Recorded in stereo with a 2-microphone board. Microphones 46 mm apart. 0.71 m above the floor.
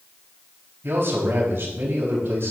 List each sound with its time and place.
0.8 s a man speaking: 60° right (ahead or behind), 4.5 m